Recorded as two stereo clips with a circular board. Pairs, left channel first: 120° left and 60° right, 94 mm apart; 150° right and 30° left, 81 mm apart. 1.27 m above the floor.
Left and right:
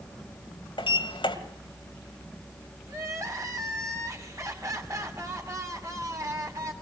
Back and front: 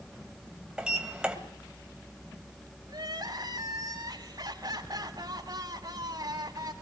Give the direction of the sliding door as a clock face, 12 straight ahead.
8 o'clock.